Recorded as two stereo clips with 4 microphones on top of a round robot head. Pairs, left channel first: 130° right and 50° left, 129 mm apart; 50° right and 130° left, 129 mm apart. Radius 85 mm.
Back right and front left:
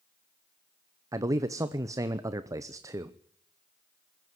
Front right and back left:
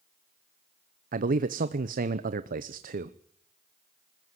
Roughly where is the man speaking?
Behind left.